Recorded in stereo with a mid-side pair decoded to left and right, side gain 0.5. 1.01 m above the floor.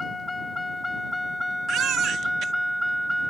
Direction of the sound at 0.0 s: 25° left.